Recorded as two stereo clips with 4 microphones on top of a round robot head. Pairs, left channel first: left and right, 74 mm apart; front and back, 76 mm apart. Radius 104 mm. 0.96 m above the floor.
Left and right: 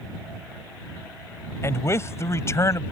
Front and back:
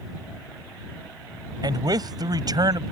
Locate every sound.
1.6 s a man speaking: 145° left